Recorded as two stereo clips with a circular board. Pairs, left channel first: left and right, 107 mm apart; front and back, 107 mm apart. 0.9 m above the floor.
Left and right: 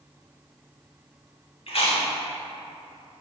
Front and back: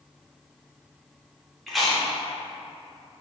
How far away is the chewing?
About 0.7 m.